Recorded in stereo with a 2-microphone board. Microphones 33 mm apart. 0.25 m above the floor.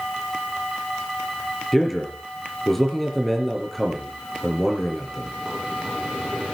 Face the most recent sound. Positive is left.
turn(degrees=5)  # may be behind; listen again after turning